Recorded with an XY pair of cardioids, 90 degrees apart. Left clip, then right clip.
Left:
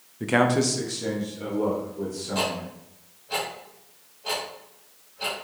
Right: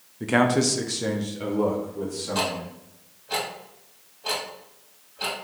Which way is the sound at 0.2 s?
10° left.